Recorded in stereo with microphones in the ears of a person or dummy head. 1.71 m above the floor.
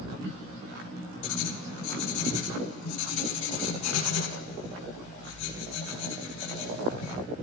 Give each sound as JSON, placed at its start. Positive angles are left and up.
{"t": 1.2, "sound": "writing", "side_deg": 70, "distance_m": 1.1}